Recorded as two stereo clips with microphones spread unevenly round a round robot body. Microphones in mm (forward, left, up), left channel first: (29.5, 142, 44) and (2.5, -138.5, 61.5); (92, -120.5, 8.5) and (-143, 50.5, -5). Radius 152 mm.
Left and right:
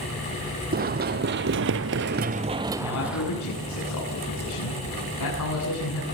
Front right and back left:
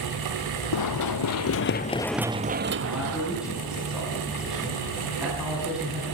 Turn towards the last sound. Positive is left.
turn(degrees=55)